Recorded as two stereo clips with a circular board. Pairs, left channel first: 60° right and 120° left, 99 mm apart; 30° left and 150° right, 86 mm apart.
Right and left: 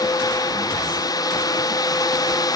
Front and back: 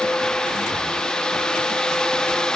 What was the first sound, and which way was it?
Only background noise.